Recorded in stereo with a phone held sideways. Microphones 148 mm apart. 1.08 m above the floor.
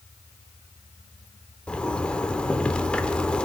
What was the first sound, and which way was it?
A zipper, 5° left (ahead or behind).